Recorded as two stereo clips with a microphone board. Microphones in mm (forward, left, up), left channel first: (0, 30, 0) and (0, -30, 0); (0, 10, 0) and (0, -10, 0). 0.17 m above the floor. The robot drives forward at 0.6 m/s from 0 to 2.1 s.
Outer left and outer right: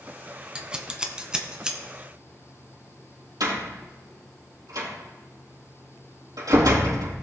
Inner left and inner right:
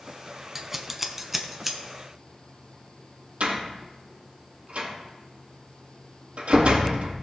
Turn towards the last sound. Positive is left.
turn(degrees=-80)